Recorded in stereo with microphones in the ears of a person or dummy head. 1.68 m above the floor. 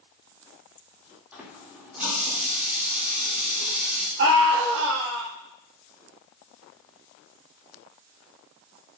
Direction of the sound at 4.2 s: 60° right (ahead or behind).